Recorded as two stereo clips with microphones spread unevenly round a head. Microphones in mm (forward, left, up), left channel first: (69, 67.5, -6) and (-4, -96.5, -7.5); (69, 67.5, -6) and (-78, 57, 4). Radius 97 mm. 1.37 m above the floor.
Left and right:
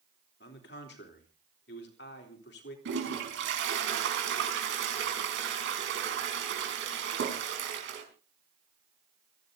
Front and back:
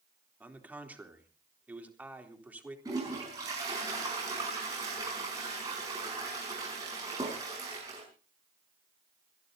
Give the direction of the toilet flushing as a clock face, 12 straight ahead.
3 o'clock.